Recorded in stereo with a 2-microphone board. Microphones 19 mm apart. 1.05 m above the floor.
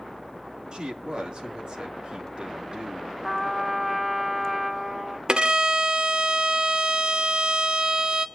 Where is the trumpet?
Centre (ahead or behind), 1.2 m.